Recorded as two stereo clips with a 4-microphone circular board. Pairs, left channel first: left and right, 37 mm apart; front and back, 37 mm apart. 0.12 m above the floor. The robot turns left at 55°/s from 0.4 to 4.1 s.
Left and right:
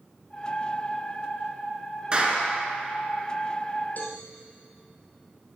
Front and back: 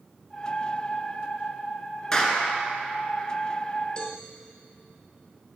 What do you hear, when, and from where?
2.1 s a clap: 55° right, 1.1 m; by 2.5 s 75° right, 1.1 m
4.0 s a cowbell: 60° left, 1.0 m; by 4.2 s 50° left, 1.0 m